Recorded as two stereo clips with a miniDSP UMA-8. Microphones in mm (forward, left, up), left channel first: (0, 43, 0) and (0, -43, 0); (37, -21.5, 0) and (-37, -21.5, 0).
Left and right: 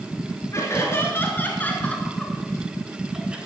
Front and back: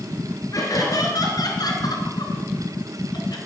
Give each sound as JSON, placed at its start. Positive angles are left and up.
{"t": 0.5, "sound": "laughter", "azimuth_deg": 35, "distance_m": 5.0}